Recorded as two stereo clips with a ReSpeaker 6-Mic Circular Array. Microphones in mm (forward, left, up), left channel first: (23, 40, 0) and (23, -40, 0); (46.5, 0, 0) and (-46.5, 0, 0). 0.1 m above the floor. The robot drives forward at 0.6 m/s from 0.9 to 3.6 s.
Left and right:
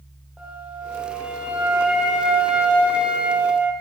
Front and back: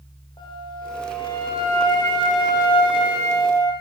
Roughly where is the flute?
Ahead.